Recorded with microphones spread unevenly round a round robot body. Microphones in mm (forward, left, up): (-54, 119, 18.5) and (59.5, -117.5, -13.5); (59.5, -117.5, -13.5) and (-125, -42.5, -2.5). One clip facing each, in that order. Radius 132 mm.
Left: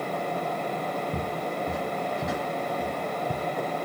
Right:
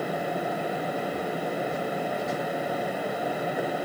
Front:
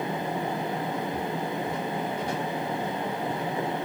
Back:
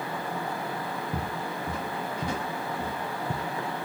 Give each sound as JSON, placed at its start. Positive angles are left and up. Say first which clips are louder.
{"t": 1.1, "sound": "footsteps", "louder": "right 1 dB, front 3 dB", "azimuth_deg": 150}